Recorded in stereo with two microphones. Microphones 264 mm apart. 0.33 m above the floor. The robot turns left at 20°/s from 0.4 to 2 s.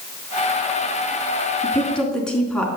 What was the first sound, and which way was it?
A woman speaking, 10° left (ahead or behind).